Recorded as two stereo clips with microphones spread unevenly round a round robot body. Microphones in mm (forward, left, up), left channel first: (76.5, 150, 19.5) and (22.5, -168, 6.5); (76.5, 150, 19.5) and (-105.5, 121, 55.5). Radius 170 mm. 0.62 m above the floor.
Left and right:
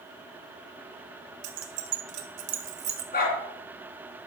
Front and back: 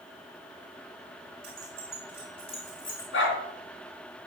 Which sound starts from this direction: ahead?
A dog barking, at 3.1 s.